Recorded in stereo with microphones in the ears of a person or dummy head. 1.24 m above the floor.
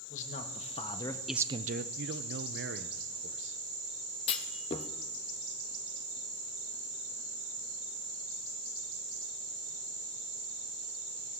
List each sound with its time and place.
0.1 s a man speaking: 35° left (ahead or behind), 1.9 m; by 1.9 s 50° right (ahead or behind), 0.8 m
2.0 s a man speaking: 50° right (ahead or behind), 0.7 m
4.3 s a clunk: 25° left (ahead or behind), 1.1 m